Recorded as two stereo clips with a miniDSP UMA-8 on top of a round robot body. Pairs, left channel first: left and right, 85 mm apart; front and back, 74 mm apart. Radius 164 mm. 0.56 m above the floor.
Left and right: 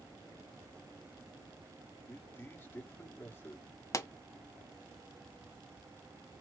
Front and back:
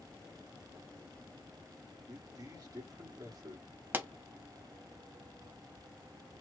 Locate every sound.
2.1 s a man speaking: 155° left, 2.5 m
3.9 s a pop: 125° left, 1.1 m